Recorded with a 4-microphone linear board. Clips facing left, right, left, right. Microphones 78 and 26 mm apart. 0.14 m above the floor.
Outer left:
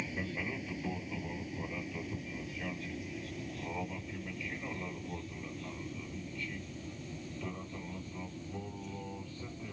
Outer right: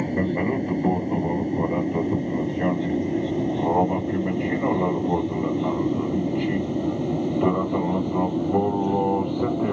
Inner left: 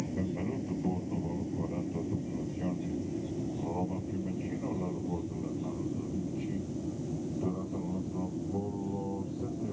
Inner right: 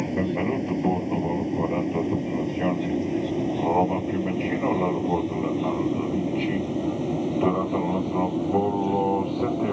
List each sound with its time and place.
0.0 s an aircraft: 50° right (ahead or behind); by 9.7 s 70° right (ahead or behind)